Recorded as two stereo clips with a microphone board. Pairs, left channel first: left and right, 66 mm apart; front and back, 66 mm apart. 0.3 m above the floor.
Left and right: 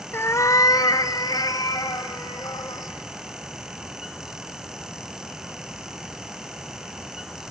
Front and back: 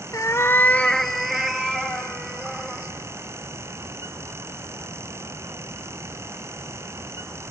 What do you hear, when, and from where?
0.1 s a cat meowing: 30° left, 0.7 m; by 2.9 s 115° left, 2.5 m